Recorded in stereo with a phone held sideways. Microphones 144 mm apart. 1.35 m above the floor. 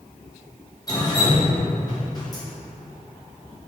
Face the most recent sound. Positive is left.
turn(degrees=25)  # may be behind; listen again after turning